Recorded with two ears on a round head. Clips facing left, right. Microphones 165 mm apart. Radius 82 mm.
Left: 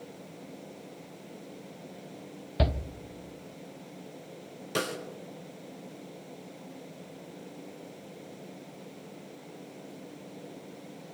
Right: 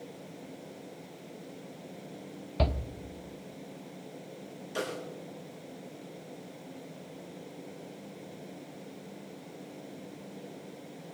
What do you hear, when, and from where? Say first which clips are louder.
2.6 s a shout: left 1 dB; 10° left (ahead or behind), 0.7 m
4.8 s a snare drum: left 2 dB; 75° left (ahead or behind), 3.5 m